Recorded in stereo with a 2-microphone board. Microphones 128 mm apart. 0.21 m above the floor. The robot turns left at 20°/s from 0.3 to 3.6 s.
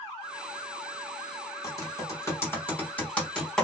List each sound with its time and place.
1.6 s typing on a keyboard: 30° left (ahead or behind), 1.8 m; by 3.6 s 5° left (ahead or behind), 1.8 m